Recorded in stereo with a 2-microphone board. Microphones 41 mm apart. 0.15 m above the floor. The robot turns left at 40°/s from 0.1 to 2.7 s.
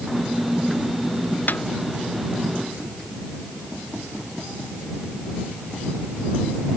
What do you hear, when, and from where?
1.5 s a snare drum: 50° left (ahead or behind); by 1.6 s 55° left (ahead or behind)